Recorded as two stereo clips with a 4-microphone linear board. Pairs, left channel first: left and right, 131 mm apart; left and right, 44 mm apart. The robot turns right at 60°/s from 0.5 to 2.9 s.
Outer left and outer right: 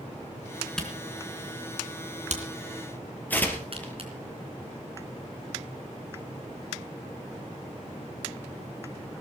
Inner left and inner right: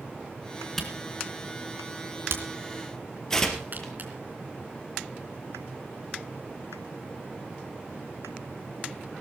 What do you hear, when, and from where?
0.8 s a camera shutter: 5° left (ahead or behind), 3 m; by 4.1 s 50° right (ahead or behind), 3 m
3.3 s tearing paper: 15° left (ahead or behind), 3 m